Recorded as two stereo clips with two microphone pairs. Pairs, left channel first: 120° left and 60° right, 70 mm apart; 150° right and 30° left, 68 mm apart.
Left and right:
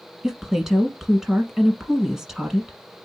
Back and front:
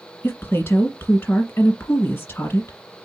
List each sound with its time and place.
0.2 s a woman speaking: 135° right, 1.4 m